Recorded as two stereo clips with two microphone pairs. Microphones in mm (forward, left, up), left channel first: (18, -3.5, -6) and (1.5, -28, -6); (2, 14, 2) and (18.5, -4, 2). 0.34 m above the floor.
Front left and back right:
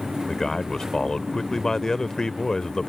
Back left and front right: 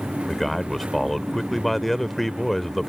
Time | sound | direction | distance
0.3 | a man speaking | 65° left | ?